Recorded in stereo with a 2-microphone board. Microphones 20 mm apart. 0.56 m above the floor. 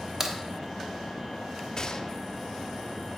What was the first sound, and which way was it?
A crack, 30° right (ahead or behind).